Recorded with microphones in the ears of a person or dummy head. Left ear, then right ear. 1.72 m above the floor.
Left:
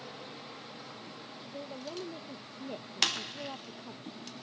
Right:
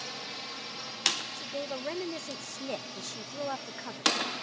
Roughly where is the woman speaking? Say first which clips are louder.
Right 8 dB; right.